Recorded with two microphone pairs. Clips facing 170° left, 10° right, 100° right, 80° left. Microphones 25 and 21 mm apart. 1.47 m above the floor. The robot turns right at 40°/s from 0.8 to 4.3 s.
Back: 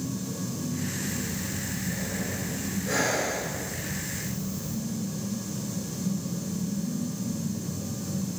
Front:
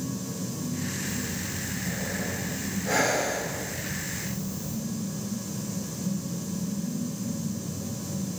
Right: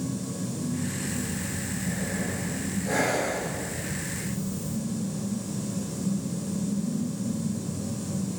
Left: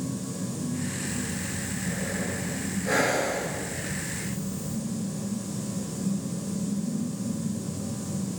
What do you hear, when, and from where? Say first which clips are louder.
1.1 s breathing: even, even; straight ahead, 4.5 m; by 4.8 s 130° left, 4.5 m